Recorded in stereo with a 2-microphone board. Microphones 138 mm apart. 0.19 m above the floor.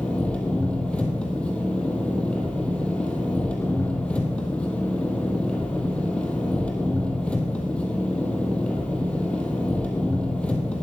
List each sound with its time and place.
0.0 s an engine running: 10° left (ahead or behind), 2 m